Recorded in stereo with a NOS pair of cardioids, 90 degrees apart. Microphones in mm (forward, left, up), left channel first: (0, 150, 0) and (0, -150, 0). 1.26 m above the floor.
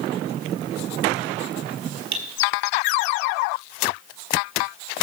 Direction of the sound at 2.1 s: 70° right.